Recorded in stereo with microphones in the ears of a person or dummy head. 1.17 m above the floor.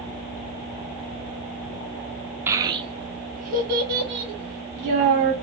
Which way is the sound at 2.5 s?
15° right (ahead or behind).